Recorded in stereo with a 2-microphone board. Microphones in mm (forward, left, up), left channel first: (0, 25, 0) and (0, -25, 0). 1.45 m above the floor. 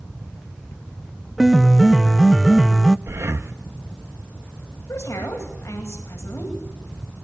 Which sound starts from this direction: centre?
A piano, at 1.4 s.